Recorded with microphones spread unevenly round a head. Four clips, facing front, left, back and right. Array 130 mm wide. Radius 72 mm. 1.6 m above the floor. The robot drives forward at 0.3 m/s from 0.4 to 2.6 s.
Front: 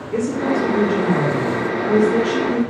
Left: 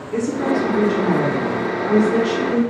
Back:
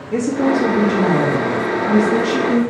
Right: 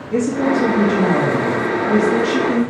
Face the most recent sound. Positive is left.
turn(degrees=-150)